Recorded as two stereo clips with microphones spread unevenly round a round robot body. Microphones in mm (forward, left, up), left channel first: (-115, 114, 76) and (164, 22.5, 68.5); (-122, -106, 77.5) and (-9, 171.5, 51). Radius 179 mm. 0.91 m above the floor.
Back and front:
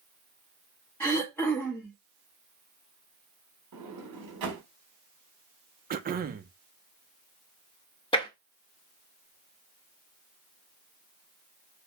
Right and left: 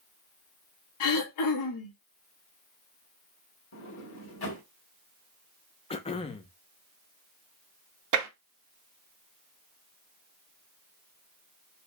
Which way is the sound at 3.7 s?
55° right.